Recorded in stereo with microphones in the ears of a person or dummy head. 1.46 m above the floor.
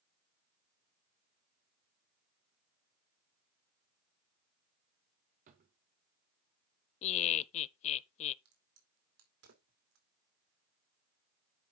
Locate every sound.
5.5 s a drawer: 45° right (ahead or behind), 1.0 m
7.0 s laughter: 45° left (ahead or behind), 0.7 m
8.4 s a crack: 75° right (ahead or behind), 3 m